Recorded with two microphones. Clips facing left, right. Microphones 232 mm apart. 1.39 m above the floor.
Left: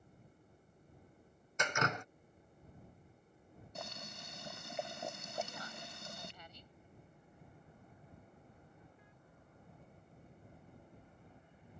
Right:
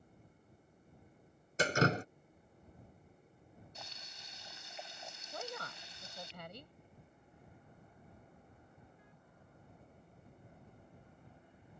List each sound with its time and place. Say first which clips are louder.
1.6 s dripping: right 7 dB; 35° right (ahead or behind)
3.8 s boiling: left 8 dB; 55° left (ahead or behind)
5.3 s a woman speaking: left 1 dB; 65° right (ahead or behind)